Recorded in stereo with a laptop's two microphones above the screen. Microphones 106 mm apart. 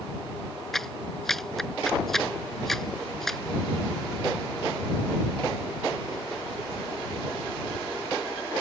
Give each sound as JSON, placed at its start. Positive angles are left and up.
{"t": 0.7, "sound": "a clap", "side_deg": 5}